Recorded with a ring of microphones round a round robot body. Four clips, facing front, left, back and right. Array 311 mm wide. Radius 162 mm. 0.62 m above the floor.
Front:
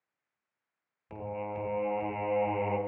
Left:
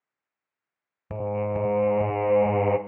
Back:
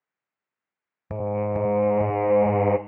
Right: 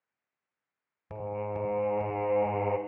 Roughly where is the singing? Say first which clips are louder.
Left 7 dB, back 11 dB; behind left.